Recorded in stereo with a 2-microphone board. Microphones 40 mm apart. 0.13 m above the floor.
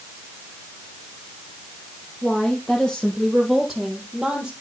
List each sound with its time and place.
2.2 s a woman speaking: 15° left (ahead or behind), 4.5 m; by 4.5 s 20° right (ahead or behind), 4 m